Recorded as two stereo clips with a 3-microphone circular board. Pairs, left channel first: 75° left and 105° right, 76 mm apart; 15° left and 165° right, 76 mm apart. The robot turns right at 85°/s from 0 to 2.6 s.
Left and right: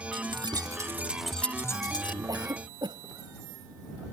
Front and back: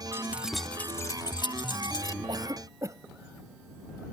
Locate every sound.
0.1 s keys jangling: 110° right; by 2.2 s 65° left
2.3 s a cough: 145° right; by 4.0 s 120° right